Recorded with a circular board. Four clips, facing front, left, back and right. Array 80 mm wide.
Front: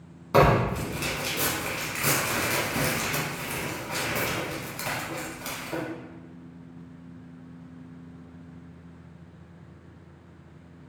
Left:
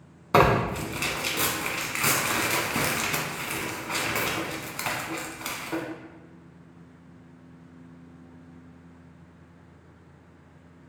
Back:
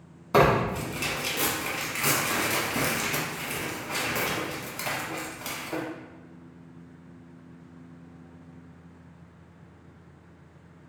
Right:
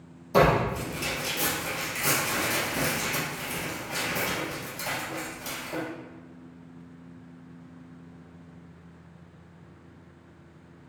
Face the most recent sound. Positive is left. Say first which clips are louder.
# left 1 dB, front 1 dB
turn(degrees=90)